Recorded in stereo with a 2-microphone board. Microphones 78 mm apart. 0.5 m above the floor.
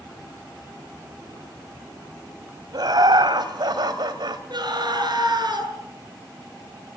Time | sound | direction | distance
2.7 | laughter | 60° right (ahead or behind) | 3.5 m
4.5 | a scream | 60° right (ahead or behind) | 8 m